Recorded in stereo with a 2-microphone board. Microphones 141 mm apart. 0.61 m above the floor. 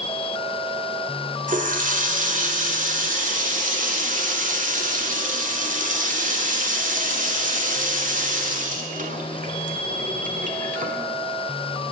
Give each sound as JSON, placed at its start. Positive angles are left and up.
{"t": 1.5, "sound": "a running tap", "side_deg": -65, "distance_m": 1.5}